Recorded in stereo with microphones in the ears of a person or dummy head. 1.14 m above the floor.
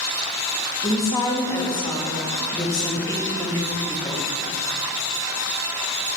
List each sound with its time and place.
0.8 s a woman speaking: 20° left (ahead or behind), 1.3 m